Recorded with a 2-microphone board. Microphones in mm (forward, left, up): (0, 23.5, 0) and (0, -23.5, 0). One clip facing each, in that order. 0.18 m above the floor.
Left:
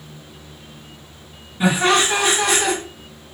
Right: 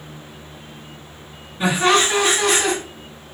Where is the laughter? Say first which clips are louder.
Even; 5° left (ahead or behind), 1.7 m.